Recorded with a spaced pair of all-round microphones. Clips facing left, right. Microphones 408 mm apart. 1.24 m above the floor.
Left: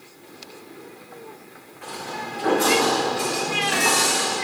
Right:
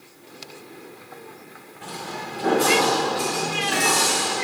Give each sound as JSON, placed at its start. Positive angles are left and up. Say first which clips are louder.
{"t": 1.8, "sound": "footsteps", "louder": "left 1 dB", "side_deg": -50, "distance_m": 5.5}